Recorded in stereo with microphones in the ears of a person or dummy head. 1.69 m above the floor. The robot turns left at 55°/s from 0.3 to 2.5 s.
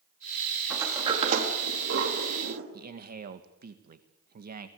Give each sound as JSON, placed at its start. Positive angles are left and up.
{"t": 0.7, "sound": "a sliding door", "side_deg": -5, "distance_m": 4.0}
{"t": 2.7, "sound": "a man speaking", "side_deg": -55, "distance_m": 2.0}